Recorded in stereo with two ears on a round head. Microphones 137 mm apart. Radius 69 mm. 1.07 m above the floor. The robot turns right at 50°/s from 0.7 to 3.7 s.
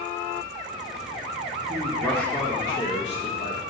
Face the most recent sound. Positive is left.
turn(degrees=95)